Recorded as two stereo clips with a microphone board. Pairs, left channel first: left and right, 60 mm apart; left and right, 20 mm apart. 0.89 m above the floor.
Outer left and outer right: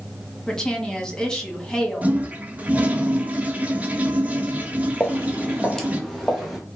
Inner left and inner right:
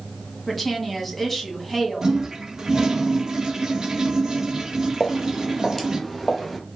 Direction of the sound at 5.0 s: 20° left (ahead or behind).